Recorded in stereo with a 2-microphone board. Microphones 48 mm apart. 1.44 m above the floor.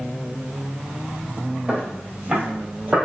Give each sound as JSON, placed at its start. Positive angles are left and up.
{"t": 1.7, "sound": "footsteps", "side_deg": -20, "distance_m": 1.8}